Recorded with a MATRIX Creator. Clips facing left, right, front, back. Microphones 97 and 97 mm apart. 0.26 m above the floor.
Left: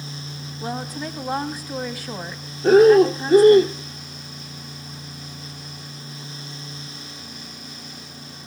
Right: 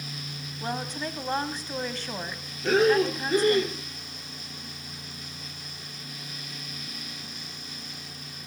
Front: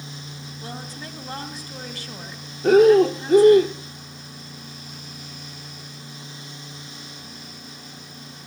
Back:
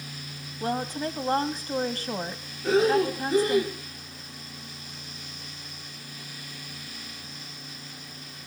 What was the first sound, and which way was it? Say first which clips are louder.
A woman speaking: left 3 dB, back 9 dB; 170° left.